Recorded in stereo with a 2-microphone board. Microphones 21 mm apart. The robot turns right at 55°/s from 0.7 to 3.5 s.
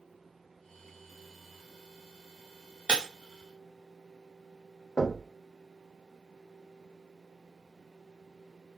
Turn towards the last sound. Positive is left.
turn(degrees=40)  # may be behind; listen again after turning